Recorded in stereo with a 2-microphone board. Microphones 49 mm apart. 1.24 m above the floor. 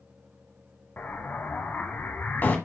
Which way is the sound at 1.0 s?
40° left (ahead or behind).